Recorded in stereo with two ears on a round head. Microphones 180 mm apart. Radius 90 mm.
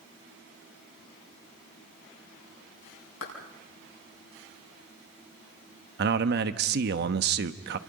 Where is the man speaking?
55° right (ahead or behind), 1.0 m.